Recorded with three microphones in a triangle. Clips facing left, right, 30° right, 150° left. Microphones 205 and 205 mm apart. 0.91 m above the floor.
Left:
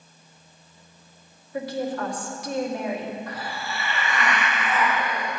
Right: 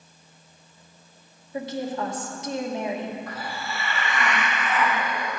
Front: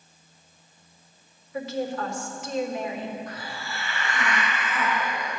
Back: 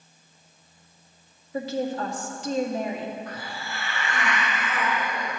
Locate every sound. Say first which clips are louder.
1.5 s a woman speaking: left 1 dB, back 2 dB; 155° right, 1.9 m
3.3 s a hiss: even, even; straight behind, 3 m